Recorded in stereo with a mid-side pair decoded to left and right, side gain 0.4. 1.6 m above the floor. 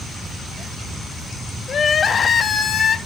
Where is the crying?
55° left, 1.0 m.